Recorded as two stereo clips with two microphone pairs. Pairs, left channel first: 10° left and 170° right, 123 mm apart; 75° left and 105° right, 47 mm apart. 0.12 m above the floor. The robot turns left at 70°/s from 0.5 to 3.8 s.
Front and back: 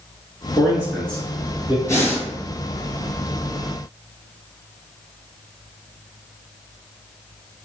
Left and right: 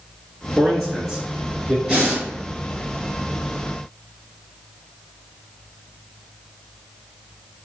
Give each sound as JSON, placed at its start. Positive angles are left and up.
{"t": 0.6, "sound": "a man speaking", "azimuth_deg": -15, "distance_m": 1.3}
{"t": 1.9, "sound": "breathing", "azimuth_deg": -40, "distance_m": 1.5}